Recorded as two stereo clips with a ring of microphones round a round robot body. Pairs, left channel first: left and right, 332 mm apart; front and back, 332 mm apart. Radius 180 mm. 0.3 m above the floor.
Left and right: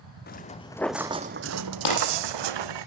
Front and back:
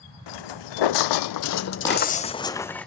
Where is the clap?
80° left, 10 m.